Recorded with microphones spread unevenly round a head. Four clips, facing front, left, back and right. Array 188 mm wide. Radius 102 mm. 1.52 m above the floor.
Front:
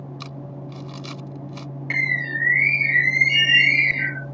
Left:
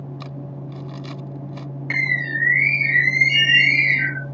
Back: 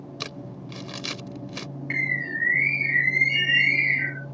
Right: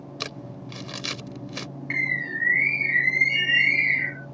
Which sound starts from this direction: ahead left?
A bird, at 1.9 s.